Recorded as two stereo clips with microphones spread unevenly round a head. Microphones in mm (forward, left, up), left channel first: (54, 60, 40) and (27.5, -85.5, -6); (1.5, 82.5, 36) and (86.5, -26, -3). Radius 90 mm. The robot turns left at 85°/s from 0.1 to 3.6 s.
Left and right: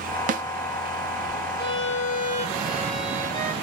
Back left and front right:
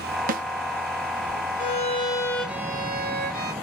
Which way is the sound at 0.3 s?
70° right.